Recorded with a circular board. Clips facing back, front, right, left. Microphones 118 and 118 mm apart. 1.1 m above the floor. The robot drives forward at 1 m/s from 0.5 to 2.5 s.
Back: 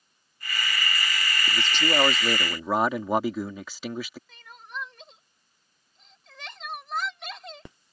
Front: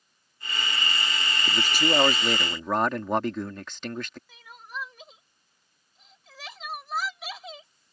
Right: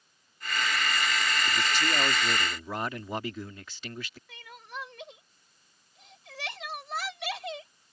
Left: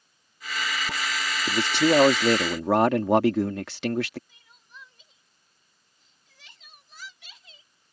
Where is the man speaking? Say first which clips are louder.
Front 2 dB, left 14 dB; 75° left; by 4.2 s 95° left.